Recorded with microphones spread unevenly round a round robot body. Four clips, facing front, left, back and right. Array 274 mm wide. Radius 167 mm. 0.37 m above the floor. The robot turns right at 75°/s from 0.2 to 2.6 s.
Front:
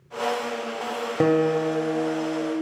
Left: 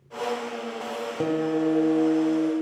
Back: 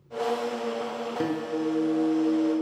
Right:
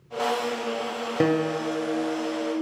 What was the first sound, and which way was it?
A guitar, 25° right.